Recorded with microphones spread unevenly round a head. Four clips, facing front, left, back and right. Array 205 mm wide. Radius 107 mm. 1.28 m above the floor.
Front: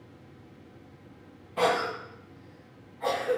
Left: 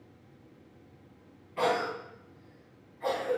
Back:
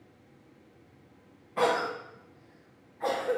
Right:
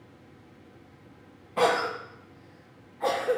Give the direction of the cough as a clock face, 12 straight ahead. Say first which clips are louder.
Right 4 dB, front 1 dB; 3 o'clock.